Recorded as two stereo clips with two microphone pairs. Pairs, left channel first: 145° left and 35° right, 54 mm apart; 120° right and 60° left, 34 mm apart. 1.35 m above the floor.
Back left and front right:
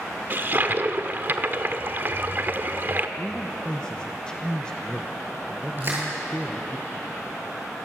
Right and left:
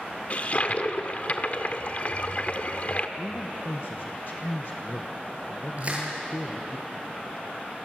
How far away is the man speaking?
About 1.0 m.